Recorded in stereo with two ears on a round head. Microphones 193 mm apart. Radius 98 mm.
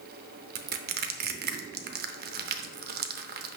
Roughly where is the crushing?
Right.